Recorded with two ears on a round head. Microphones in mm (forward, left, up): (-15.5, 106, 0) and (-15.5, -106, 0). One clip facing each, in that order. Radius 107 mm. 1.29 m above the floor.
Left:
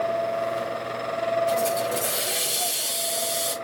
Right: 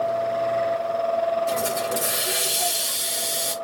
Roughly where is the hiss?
Centre.